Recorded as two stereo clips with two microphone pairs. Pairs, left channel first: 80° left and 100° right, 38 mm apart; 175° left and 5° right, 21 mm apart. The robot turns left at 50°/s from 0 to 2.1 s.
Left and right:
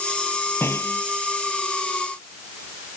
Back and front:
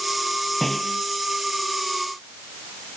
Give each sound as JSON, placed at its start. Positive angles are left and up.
{"t": 0.6, "sound": "a snare drum", "azimuth_deg": 90}